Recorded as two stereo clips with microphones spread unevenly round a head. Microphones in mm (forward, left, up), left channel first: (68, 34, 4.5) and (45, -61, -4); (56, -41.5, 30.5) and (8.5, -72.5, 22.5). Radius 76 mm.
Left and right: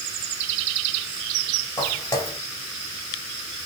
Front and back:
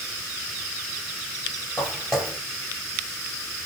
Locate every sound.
1.8 s footsteps: 110° left, 1.8 m